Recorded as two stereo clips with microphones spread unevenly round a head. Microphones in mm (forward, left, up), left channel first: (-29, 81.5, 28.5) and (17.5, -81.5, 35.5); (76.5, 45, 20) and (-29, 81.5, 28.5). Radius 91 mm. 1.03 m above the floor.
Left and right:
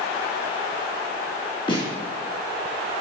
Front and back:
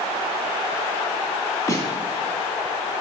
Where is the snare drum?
45° left, 3.5 m.